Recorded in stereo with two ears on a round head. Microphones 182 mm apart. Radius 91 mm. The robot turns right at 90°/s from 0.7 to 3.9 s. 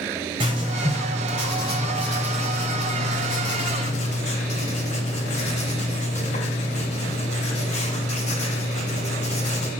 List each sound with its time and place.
0.4 s writing: 150° right, 3.5 m; by 9.7 s 140° left, 3.5 m